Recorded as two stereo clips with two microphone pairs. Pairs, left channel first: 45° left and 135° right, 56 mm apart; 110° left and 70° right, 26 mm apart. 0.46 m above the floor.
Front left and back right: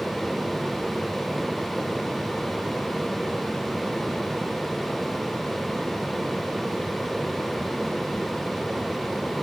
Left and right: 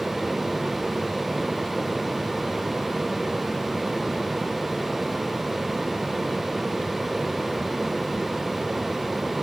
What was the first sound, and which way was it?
Only background noise.